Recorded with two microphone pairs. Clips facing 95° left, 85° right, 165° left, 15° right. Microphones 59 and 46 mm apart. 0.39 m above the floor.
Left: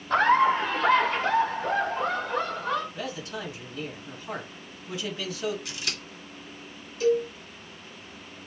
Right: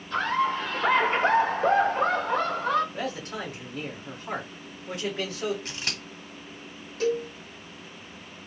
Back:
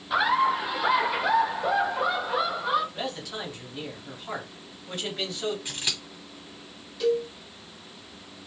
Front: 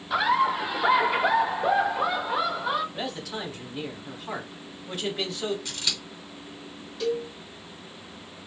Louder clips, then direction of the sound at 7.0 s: Left 3 dB, back 3 dB; 100° right.